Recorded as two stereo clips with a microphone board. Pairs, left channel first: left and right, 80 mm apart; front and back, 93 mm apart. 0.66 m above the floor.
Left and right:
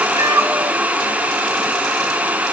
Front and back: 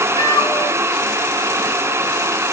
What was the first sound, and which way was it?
A cat meowing, 45° right.